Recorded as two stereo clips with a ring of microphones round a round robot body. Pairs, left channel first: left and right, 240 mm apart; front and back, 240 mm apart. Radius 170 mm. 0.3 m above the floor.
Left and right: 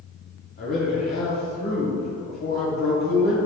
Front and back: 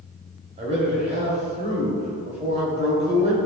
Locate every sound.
0.6 s a man speaking: 130° left, 1.9 m